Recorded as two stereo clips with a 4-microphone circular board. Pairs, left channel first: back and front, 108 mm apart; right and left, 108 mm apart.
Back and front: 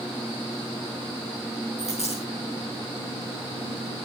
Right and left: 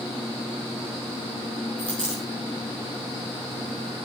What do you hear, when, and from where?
1.8 s a dropped coin: 170° right, 7 m